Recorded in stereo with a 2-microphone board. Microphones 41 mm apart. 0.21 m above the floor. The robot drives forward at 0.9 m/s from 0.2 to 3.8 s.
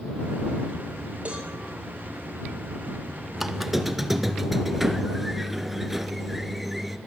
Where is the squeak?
10° right (ahead or behind), 0.6 m; by 7.0 s 5° right (ahead or behind), 1.0 m.